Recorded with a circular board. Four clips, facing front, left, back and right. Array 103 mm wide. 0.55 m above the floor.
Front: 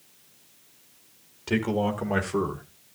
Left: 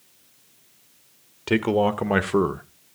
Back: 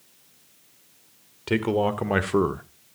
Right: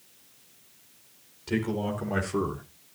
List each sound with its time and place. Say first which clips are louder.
1.5 s a man speaking: left 8 dB, back 3 dB; 105° left, 1.4 m; by 2.6 s 135° left, 0.8 m